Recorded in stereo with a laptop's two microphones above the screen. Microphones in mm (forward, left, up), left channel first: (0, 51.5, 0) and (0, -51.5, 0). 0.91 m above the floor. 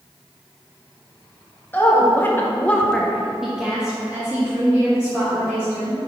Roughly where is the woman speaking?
Left.